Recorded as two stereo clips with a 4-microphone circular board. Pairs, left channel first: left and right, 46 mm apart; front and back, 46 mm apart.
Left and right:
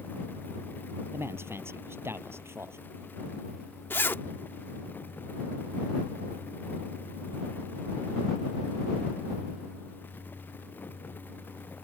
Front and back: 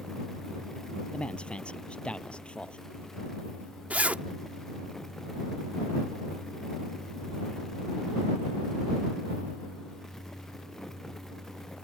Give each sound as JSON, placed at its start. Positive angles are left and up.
{"t": 1.1, "sound": "a man speaking", "azimuth_deg": -65}
{"t": 3.9, "sound": "a zipper", "azimuth_deg": 120}